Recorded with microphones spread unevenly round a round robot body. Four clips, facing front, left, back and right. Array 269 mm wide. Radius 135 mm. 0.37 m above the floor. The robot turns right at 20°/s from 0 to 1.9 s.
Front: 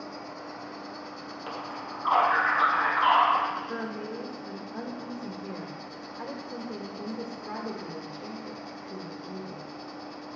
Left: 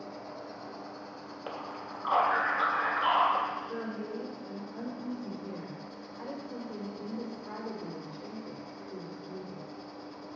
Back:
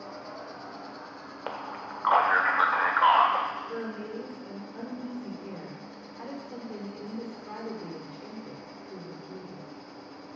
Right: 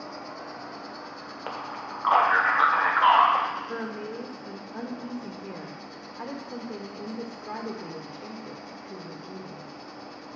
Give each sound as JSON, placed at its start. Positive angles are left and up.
{"t": 0.0, "sound": "an insect", "azimuth_deg": -65, "distance_m": 1.0}
{"t": 1.5, "sound": "a man speaking", "azimuth_deg": -165, "distance_m": 1.5}
{"t": 3.7, "sound": "a woman speaking", "azimuth_deg": -80, "distance_m": 1.4}